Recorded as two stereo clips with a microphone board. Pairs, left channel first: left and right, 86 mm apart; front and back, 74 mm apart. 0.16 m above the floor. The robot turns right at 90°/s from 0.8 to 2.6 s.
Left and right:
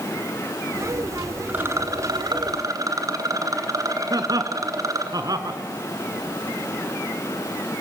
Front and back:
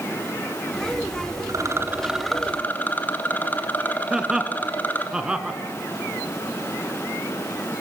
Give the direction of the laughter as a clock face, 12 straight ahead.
3 o'clock.